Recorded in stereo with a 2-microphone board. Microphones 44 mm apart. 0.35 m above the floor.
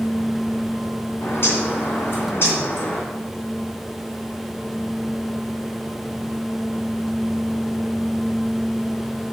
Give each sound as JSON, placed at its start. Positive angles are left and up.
{"t": 1.2, "sound": "a bird", "side_deg": 60, "distance_m": 3.0}